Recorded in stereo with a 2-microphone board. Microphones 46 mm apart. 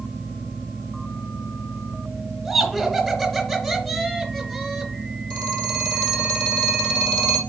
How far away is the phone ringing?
About 4.5 m.